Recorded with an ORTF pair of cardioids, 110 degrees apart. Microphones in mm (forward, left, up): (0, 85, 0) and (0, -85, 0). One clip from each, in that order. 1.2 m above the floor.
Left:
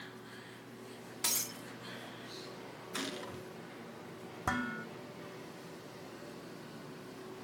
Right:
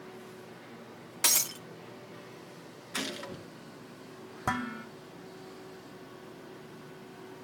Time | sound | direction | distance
1.2 | breaking glass | 40° right | 1.5 m
2.9 | a gunshot | 25° right | 3 m
4.5 | dishes clattering | 15° right | 1.8 m